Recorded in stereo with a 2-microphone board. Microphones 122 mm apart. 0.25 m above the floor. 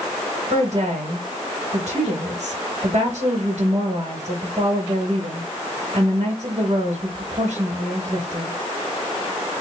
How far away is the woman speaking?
About 2.5 m.